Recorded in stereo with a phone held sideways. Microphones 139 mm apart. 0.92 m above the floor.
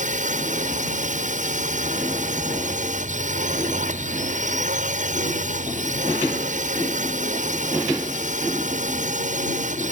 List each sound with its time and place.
0.0 s a drone: 60° right (ahead or behind)